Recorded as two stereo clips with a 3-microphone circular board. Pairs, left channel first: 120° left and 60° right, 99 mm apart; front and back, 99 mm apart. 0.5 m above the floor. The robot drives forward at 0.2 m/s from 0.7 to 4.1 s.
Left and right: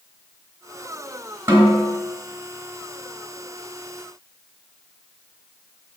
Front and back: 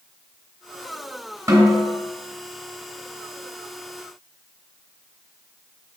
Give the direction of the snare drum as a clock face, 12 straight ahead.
4 o'clock.